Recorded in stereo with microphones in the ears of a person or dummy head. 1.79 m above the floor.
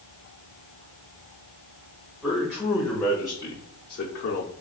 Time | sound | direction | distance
2.2 | a man speaking | 5° right (ahead or behind) | 1.3 m